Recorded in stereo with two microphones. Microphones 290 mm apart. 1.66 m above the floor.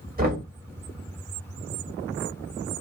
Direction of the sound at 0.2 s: 30° right (ahead or behind).